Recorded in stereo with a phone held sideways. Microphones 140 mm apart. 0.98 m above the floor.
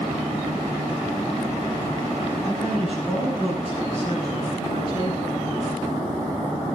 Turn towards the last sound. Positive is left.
turn(degrees=40)  # may be behind; listen again after turning